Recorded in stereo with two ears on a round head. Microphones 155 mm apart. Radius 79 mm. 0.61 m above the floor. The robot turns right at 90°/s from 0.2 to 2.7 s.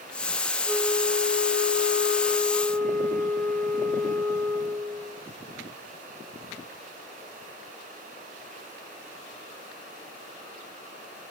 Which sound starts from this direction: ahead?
A flute, at 0.7 s.